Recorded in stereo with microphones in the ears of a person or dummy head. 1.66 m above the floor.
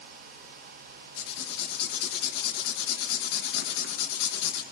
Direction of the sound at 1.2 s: 65° left (ahead or behind).